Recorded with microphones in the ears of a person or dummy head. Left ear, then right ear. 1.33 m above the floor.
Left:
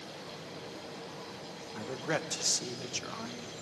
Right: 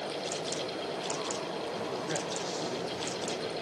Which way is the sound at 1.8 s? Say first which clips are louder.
Left 4 dB; 25° left (ahead or behind).